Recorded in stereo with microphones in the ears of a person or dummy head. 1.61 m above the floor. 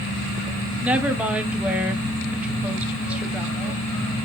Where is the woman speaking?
10° right (ahead or behind), 1.1 m.